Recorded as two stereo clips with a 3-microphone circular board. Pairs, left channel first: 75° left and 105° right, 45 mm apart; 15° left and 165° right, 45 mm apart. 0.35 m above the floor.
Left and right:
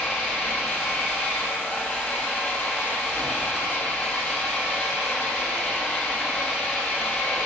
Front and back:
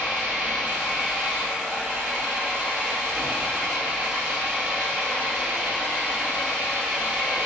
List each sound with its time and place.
0.0 s an engine running: 145° left, 3.5 m